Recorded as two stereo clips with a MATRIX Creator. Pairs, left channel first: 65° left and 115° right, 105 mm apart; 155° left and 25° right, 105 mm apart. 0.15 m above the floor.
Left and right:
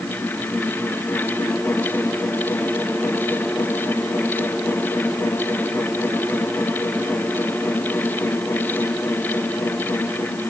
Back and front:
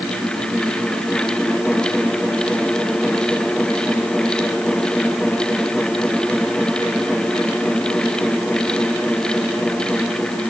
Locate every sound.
Only background noise.